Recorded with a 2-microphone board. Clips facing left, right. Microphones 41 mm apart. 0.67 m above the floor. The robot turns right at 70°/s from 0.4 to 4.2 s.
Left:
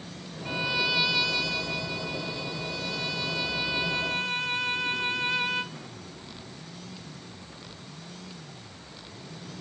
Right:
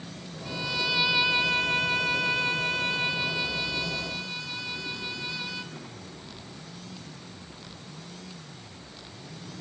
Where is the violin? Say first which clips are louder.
Left 2 dB; 145° left, 1.0 m; by 5.8 s 50° left, 1.0 m.